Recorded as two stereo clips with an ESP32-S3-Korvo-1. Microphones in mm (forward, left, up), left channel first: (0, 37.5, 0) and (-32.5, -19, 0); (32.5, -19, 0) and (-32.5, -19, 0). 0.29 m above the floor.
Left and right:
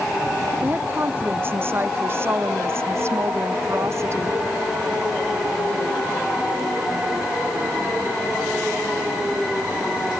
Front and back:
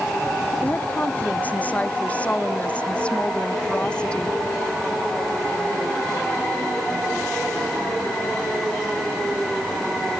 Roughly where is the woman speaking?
Ahead right.